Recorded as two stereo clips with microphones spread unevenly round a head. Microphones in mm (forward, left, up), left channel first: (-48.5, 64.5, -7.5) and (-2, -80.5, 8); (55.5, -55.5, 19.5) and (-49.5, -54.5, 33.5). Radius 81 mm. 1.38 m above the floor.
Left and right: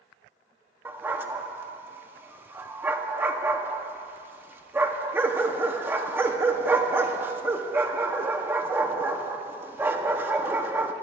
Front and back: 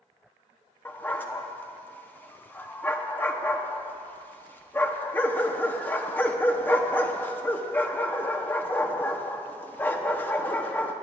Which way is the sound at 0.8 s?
60° right.